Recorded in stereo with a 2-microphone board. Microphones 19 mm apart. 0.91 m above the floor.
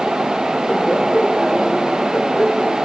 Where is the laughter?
45° left (ahead or behind), 2.5 m; by 2.8 s 70° left (ahead or behind), 3.5 m.